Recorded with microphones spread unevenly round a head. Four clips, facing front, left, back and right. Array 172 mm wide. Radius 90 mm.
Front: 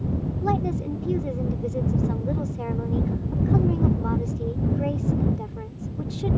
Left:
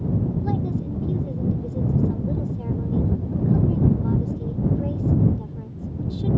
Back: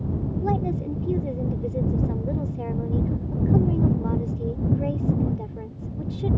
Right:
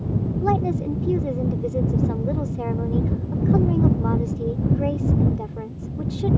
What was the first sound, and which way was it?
A woman speaking, 100° right.